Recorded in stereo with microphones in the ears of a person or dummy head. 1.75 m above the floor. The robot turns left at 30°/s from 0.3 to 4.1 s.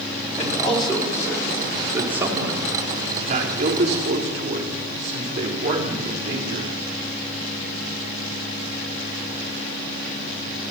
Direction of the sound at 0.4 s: 35° left (ahead or behind).